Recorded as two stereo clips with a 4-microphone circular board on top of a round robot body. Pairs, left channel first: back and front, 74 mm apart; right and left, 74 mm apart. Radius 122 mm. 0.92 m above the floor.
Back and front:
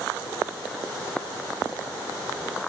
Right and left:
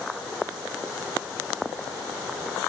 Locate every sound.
Only background noise.